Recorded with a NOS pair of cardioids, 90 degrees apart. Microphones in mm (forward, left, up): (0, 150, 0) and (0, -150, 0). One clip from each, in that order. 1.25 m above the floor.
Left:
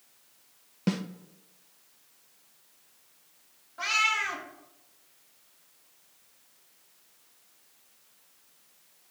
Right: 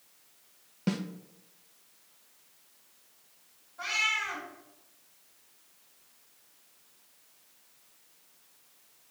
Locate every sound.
0.9 s a snare drum: 10° left, 0.6 m
3.8 s a cat meowing: 65° left, 2.5 m